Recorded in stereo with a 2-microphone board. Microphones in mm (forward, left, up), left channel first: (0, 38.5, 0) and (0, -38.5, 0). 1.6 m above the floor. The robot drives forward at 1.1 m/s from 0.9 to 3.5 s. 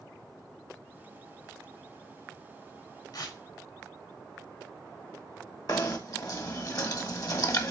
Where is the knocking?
50° left (ahead or behind), 1.4 m.